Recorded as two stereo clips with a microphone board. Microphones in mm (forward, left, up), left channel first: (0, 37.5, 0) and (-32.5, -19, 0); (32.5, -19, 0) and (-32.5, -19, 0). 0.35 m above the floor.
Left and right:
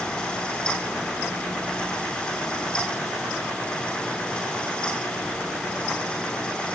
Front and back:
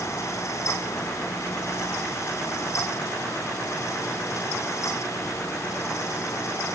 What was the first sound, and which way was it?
Only background noise.